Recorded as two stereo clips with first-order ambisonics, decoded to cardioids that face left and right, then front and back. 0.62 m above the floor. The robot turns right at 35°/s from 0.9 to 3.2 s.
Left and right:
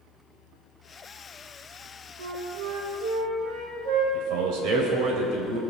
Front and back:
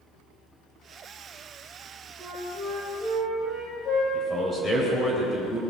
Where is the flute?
85° right, 5.5 m; by 4.0 s 50° right, 5.5 m.